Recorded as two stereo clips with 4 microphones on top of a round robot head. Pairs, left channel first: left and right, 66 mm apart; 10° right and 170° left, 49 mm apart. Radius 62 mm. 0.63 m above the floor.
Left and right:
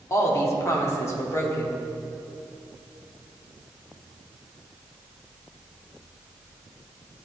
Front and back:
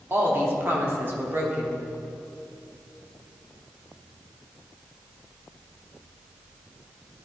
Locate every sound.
0.1 s a woman speaking: 135° left, 1.2 m